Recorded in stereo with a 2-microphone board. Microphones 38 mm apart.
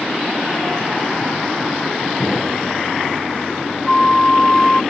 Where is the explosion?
15° left (ahead or behind).